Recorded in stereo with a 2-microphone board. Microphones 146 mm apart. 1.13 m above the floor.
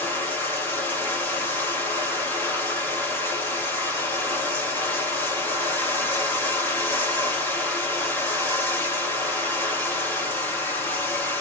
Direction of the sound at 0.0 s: 15° left (ahead or behind).